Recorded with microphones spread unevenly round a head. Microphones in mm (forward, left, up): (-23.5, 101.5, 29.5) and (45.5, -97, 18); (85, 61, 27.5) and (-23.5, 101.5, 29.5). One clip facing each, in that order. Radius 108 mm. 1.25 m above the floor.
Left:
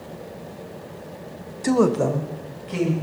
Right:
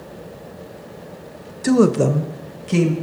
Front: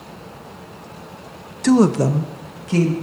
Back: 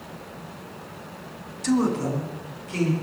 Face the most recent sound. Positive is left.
turn(degrees=-40)